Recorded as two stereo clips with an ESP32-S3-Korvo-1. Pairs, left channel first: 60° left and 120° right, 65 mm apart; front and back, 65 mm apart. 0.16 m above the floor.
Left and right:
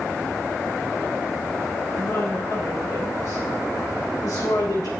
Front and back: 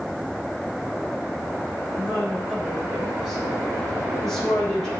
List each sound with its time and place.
1.9 s a woman speaking: 110° left, 5 m; by 4.9 s 85° left, 4.5 m